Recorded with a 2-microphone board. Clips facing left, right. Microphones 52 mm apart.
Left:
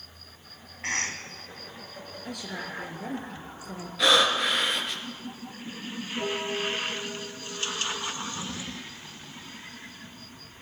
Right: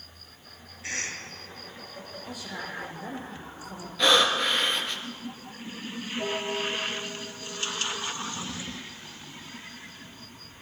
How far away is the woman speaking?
About 5 m.